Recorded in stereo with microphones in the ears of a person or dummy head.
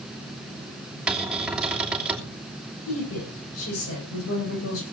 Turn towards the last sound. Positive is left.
turn(degrees=85)